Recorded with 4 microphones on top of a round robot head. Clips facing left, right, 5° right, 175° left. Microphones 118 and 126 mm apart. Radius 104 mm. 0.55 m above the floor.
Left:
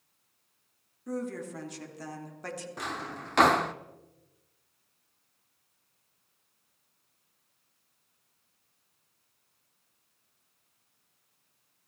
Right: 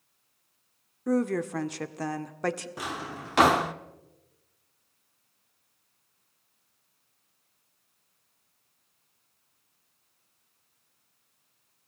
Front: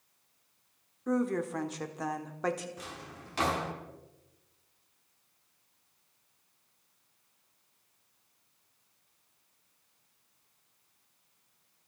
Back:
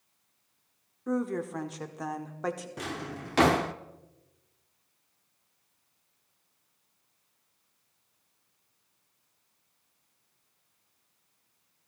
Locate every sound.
1.1 s a woman speaking: 95° right, 1.6 m
2.8 s a drawer: 175° right, 0.9 m